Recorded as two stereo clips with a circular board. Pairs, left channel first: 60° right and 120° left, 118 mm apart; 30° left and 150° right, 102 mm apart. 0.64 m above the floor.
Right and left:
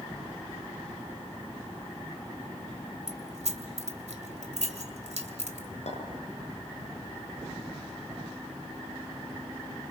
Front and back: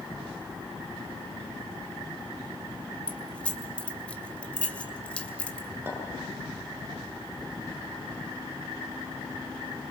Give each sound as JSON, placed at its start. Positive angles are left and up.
{"t": 3.1, "sound": "keys jangling", "azimuth_deg": 110, "distance_m": 2.5}
{"t": 5.9, "sound": "a clink", "azimuth_deg": -80, "distance_m": 8.0}